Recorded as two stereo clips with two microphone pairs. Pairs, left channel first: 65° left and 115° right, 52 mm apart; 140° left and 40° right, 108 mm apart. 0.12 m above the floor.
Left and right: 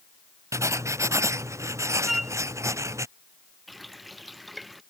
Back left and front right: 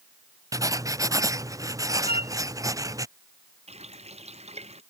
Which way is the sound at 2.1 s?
155° left.